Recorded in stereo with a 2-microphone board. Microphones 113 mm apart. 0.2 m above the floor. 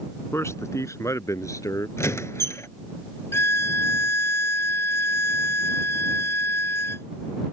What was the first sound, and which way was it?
A man speaking, 25° left (ahead or behind).